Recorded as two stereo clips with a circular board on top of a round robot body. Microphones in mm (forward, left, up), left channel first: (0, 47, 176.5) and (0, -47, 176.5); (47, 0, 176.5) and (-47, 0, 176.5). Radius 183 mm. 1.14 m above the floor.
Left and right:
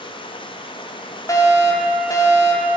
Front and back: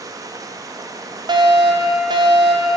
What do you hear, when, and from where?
0.0 s running water: 125° left, 1.2 m
1.3 s a fire alarm: 145° left, 3.5 m